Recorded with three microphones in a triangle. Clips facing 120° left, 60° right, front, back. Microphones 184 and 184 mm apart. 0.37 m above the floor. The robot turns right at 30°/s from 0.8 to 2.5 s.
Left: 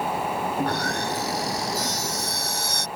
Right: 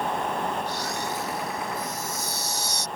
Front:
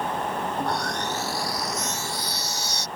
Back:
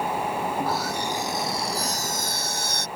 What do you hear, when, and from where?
0.6 s sawing: 95° left; by 2.9 s 145° left